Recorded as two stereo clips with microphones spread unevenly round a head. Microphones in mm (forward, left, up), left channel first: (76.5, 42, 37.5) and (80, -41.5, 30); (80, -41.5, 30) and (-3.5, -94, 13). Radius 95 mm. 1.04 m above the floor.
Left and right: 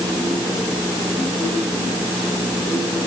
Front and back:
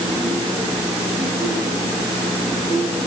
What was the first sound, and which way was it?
Only background noise.